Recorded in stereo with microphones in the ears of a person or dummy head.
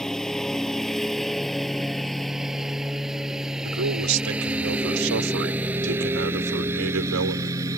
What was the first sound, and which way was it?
A lawn mower, 5° left (ahead or behind).